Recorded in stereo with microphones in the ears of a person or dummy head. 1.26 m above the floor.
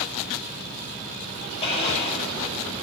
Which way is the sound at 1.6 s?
30° left (ahead or behind).